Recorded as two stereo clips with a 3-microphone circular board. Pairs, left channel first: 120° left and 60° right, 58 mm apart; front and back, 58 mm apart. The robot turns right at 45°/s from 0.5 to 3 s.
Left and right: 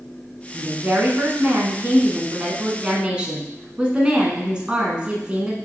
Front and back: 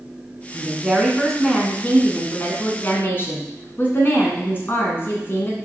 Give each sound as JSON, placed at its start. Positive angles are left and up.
{"t": 0.5, "sound": "a woman speaking", "azimuth_deg": -110, "distance_m": 1.3}